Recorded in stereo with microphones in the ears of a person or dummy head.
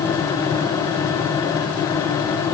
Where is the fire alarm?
No fire alarm in this recording.